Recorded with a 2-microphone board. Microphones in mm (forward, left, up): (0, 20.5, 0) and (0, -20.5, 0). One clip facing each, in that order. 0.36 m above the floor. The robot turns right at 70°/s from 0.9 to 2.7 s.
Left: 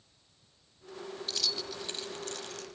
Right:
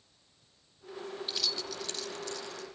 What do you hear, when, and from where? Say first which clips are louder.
1.3 s keys jangling: left 1 dB; 15° right (ahead or behind), 1.1 m; by 2.8 s 65° left (ahead or behind), 1.1 m